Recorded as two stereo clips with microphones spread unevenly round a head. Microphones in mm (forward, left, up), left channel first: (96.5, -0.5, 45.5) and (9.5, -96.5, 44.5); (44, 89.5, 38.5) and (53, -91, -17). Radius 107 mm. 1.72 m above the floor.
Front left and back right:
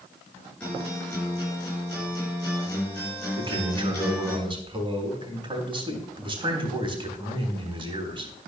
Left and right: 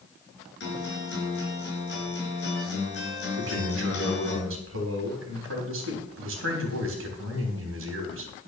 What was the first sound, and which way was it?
A guitar, 135° left.